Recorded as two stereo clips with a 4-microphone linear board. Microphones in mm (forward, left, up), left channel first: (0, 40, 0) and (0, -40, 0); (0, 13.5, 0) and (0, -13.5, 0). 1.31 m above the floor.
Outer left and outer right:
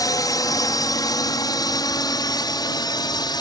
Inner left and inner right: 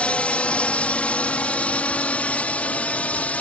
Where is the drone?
50° left (ahead or behind); by 3.4 s 60° left (ahead or behind).